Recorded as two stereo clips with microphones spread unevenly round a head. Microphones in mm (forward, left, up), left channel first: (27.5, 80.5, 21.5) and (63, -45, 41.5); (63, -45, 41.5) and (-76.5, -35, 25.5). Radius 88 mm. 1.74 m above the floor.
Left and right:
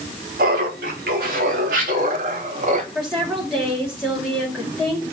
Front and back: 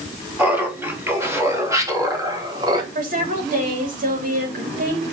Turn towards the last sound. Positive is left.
turn(degrees=-160)